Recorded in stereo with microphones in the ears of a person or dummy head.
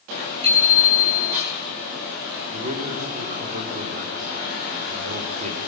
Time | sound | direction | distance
0.4 | a bicycle bell | 35° right (ahead or behind) | 8.5 m
2.5 | a man speaking | 45° right (ahead or behind) | 2.5 m